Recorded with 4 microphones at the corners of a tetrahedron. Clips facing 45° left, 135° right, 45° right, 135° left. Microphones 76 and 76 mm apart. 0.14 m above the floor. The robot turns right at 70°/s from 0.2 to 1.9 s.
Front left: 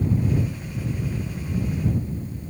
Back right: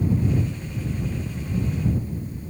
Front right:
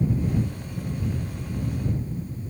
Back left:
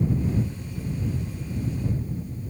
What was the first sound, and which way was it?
Only background noise.